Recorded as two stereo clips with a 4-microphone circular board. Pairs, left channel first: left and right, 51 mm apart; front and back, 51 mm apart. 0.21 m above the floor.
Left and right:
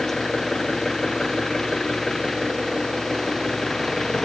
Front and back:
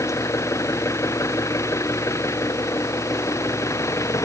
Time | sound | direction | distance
0.0 | an engine running | 5° left | ?